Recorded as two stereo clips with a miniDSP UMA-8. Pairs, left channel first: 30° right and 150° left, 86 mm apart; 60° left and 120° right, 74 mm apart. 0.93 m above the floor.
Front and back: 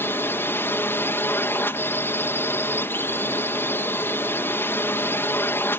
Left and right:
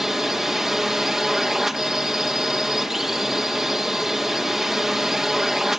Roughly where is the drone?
Ahead right.